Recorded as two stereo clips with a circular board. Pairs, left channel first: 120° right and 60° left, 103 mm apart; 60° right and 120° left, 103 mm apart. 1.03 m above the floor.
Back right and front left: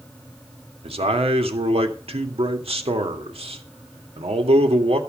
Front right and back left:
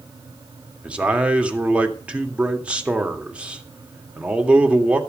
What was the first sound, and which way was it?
A man speaking, 40° left.